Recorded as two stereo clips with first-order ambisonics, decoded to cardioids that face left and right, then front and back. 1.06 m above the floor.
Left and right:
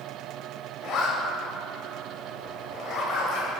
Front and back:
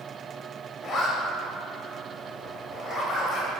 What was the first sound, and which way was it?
A zipper, 55° left.